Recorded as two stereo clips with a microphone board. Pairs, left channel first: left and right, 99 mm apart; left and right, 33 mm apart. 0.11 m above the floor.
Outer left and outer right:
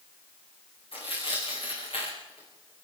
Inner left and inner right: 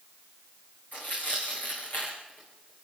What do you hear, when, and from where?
0.9 s tearing paper: 65° left (ahead or behind), 7 m